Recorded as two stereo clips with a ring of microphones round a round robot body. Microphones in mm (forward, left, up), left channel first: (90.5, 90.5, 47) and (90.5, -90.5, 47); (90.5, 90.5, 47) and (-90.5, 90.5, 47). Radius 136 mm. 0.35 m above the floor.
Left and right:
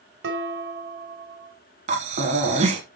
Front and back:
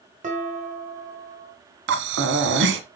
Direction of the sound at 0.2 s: 125° right.